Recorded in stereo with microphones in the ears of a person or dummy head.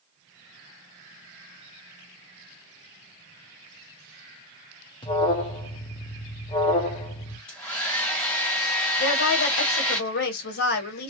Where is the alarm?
25° left (ahead or behind), 0.5 m.